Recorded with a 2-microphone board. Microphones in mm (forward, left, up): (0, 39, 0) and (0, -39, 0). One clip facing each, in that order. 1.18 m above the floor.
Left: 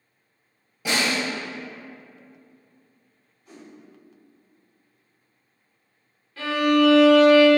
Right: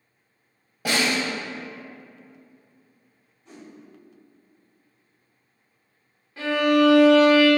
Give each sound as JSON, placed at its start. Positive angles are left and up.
{"t": 0.8, "sound": "a snare drum", "side_deg": -60, "distance_m": 1.6}
{"t": 3.5, "sound": "a whoosh", "side_deg": -20, "distance_m": 1.4}
{"t": 6.4, "sound": "a violin", "side_deg": -20, "distance_m": 0.7}